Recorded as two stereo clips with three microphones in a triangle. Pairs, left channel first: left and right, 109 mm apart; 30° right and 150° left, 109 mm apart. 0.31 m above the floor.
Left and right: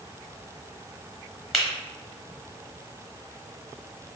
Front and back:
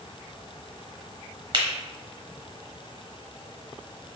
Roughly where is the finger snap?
Behind.